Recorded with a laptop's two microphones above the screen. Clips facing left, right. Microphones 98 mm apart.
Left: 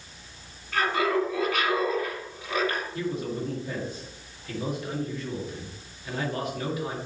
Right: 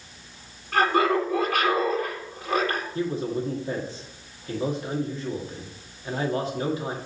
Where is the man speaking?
30° right (ahead or behind), 1.9 m.